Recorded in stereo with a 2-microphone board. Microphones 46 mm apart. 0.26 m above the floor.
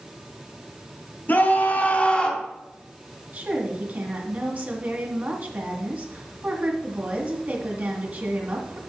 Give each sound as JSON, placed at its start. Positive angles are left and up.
{"t": 1.3, "sound": "a scream", "side_deg": 45, "distance_m": 2.5}
{"t": 3.3, "sound": "a woman speaking", "side_deg": -40, "distance_m": 2.0}